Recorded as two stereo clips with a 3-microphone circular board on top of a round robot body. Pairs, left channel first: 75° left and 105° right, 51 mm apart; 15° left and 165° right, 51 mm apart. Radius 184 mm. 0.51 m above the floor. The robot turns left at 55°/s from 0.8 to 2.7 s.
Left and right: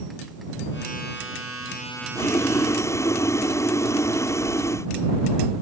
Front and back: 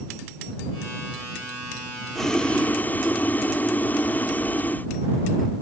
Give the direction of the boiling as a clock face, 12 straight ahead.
9 o'clock.